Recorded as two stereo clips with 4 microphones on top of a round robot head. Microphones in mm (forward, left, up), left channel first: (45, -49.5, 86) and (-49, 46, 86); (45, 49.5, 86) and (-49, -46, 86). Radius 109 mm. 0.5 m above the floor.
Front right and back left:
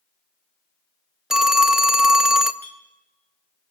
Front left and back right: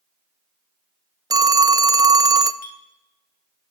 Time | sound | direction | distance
1.3 | a phone ringing | 145° right | 0.6 m
2.6 | a clink | 30° left | 2 m